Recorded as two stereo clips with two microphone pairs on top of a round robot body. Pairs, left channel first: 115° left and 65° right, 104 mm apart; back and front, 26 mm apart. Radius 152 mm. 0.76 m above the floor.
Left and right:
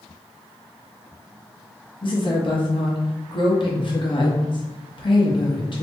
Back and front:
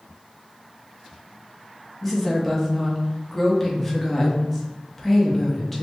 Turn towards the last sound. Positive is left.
turn(degrees=95)